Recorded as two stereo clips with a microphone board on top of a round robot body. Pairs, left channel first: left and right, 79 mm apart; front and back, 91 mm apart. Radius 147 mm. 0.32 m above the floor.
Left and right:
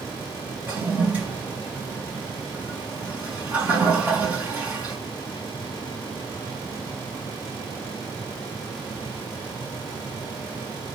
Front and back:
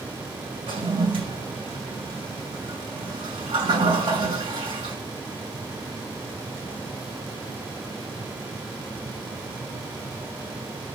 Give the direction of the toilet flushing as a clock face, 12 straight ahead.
5 o'clock.